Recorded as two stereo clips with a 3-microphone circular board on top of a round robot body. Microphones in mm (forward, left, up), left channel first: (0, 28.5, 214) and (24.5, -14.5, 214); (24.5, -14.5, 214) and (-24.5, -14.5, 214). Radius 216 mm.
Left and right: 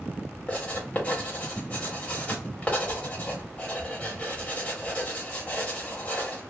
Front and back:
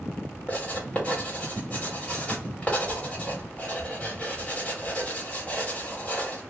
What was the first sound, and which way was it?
Writing, 60° left.